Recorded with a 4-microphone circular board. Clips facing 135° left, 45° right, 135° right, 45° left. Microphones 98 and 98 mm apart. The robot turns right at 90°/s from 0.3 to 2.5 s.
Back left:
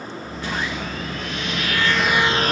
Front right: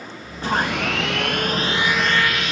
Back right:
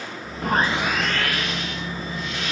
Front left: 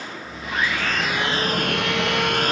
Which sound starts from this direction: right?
Sawing, at 0.4 s.